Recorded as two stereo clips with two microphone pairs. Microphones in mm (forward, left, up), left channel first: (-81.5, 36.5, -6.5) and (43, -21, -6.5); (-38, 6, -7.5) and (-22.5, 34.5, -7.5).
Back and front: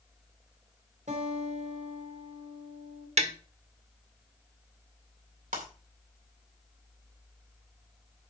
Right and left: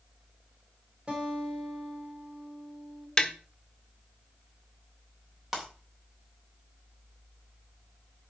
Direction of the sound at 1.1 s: 5° left.